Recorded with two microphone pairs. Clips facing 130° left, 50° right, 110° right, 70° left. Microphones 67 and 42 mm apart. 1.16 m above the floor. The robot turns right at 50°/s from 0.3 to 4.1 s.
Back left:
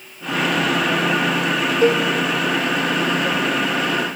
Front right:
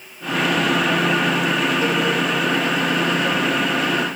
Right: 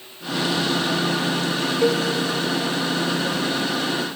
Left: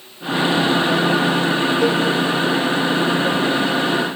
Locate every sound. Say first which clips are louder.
1.8 s a cowbell: back left 4 dB, right 1 dB; 155° left, 1.9 m; by 2.0 s 170° left, 1.9 m